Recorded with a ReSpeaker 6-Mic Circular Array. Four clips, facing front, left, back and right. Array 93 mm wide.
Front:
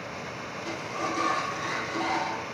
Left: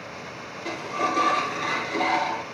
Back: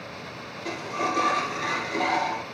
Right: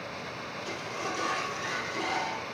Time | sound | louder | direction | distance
0.7 | a sliding door | left 10 dB, back 4 dB | 120° left | 1.3 m